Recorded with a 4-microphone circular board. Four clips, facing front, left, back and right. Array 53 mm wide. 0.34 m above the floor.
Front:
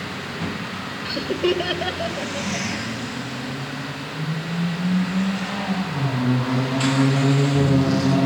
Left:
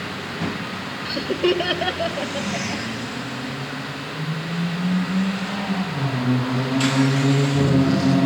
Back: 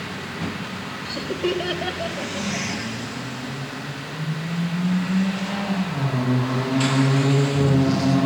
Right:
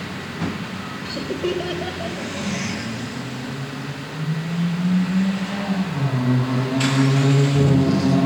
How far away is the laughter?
About 1.0 m.